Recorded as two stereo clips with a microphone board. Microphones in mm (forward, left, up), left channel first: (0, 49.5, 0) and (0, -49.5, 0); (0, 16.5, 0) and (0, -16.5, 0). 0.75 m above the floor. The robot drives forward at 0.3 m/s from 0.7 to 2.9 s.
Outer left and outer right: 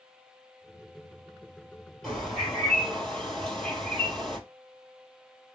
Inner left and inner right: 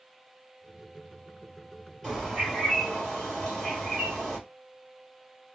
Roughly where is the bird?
Centre.